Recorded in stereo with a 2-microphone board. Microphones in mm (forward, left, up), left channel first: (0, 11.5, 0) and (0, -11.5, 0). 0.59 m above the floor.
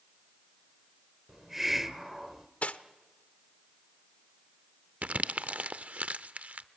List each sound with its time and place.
1.3 s a hiss: 10° right (ahead or behind), 0.8 m
2.6 s cutlery clinking: 75° left (ahead or behind), 0.8 m
5.0 s crumpling: 70° right (ahead or behind), 0.6 m